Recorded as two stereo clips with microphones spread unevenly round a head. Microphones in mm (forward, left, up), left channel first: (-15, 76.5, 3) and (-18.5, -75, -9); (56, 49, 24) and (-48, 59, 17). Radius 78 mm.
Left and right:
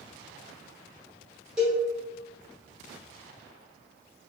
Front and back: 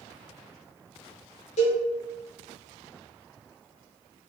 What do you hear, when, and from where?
1.6 s a cowbell: 10° right, 1.3 m